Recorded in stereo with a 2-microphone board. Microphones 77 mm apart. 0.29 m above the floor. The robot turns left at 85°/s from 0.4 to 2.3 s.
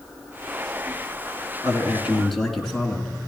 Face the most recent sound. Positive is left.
turn(degrees=180)